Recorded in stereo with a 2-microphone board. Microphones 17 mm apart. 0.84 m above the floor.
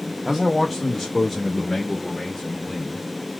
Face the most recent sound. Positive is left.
turn(degrees=45)  # may be behind; listen again after turning